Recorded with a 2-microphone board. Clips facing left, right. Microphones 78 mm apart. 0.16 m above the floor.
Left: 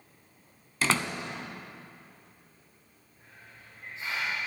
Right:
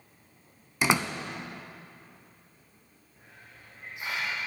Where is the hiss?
20° right (ahead or behind), 4 m.